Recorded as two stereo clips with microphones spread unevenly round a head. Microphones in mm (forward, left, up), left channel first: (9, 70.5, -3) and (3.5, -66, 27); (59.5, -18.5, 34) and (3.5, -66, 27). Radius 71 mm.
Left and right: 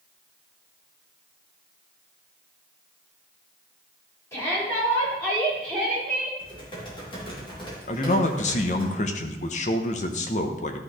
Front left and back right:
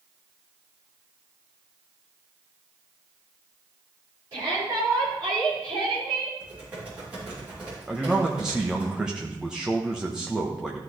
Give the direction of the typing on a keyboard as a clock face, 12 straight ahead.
7 o'clock.